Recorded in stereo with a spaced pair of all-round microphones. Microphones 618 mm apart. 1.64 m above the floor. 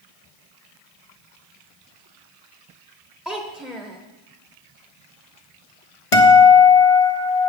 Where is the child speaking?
Centre (ahead or behind), 0.7 m.